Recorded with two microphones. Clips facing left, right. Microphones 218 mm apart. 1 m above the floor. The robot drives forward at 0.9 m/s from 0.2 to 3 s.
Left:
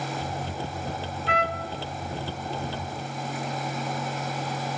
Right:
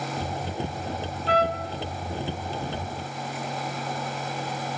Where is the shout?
I don't hear a shout.